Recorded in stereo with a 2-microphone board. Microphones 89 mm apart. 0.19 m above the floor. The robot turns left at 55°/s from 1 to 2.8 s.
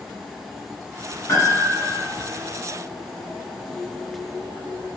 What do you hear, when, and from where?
1.3 s a piano: 130° left, 2.0 m; by 2.0 s 90° left, 2.0 m